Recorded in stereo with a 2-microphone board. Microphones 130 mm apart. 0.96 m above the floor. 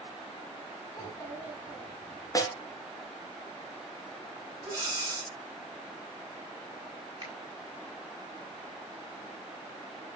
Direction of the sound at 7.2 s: 35° right (ahead or behind).